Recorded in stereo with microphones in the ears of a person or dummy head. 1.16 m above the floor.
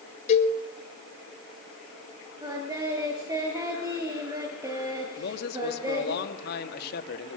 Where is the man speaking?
60° left (ahead or behind), 2.5 m.